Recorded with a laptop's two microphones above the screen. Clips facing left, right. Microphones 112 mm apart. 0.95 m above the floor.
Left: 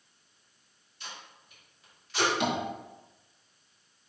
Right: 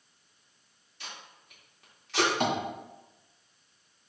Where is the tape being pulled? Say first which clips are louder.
Even; 70° right (ahead or behind), 2.5 m.